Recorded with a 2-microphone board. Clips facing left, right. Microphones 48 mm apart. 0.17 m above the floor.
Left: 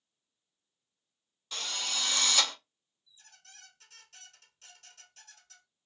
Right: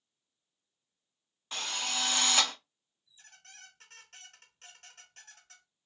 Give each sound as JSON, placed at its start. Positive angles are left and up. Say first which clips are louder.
{"t": 1.5, "sound": "a drill", "louder": "right 1 dB", "side_deg": -30, "distance_m": 1.1}
{"t": 3.1, "sound": "a squeak", "louder": "right 2 dB", "side_deg": -40, "distance_m": 1.0}